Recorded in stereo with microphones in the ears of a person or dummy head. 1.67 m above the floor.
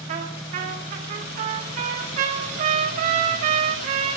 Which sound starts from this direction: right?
A trumpet, at 0.1 s.